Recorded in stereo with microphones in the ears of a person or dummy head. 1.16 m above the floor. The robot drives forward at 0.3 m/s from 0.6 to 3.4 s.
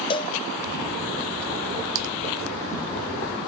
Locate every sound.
0.1 s a cowbell: 20° left (ahead or behind), 0.6 m
1.9 s typing on a keyboard: 70° right (ahead or behind), 0.5 m